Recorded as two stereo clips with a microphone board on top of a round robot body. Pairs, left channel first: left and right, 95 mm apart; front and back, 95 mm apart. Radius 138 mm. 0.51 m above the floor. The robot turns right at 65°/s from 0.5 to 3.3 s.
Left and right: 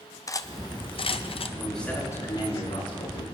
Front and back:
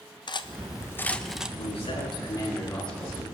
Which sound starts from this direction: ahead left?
Cutlery clinking, at 0.3 s.